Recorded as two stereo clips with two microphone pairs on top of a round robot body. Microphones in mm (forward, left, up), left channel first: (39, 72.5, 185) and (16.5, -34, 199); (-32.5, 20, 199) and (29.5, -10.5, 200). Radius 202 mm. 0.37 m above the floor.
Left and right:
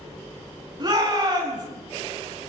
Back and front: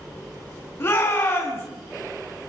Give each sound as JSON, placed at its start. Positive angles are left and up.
{"t": 0.8, "sound": "a shout", "azimuth_deg": -155, "distance_m": 5.0}